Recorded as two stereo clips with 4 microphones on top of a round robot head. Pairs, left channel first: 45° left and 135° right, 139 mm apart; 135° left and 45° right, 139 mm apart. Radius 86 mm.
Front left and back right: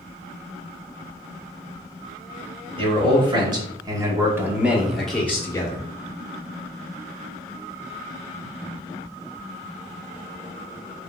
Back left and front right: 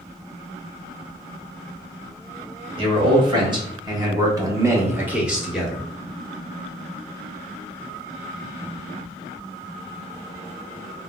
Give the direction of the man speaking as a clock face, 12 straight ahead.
3 o'clock.